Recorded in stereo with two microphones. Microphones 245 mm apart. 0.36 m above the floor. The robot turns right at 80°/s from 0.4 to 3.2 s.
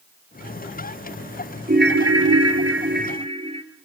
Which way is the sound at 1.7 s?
145° right.